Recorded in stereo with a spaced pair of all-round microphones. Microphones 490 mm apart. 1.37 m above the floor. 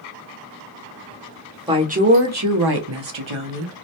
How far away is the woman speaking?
About 0.8 m.